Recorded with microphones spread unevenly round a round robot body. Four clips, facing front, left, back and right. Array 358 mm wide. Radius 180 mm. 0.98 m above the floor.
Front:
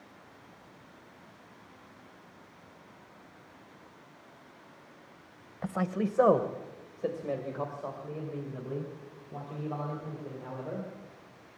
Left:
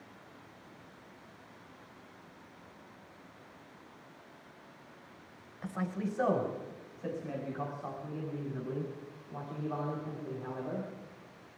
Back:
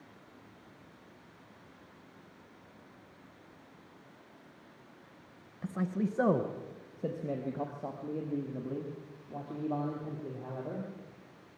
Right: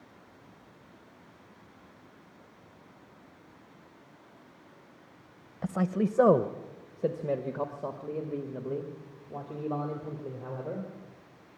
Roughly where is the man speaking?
Ahead right.